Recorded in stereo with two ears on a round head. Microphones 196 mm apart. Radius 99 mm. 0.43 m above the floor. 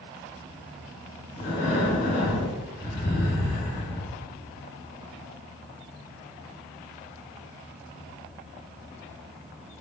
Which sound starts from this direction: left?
Breathing, at 1.4 s.